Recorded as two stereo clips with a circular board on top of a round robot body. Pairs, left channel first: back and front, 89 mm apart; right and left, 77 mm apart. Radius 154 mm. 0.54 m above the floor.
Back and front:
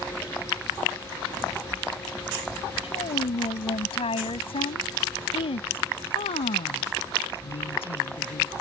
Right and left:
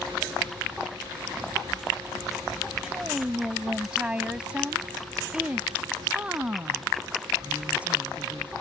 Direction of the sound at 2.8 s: 170° left.